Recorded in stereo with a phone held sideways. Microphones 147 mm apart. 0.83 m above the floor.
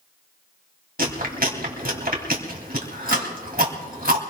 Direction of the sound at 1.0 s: 75° right (ahead or behind).